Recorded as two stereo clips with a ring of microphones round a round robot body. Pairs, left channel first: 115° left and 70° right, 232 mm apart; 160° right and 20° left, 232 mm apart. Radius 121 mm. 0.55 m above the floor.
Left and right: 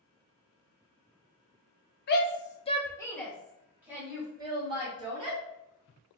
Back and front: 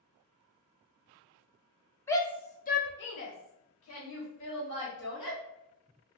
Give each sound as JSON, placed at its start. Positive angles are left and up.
{"t": 2.1, "sound": "a shout", "azimuth_deg": 125, "distance_m": 0.9}